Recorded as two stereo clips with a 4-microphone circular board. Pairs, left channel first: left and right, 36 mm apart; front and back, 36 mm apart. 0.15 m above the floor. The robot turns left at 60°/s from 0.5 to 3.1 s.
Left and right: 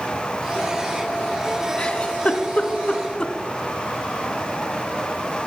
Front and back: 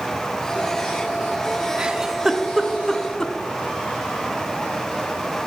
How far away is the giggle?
About 0.6 m.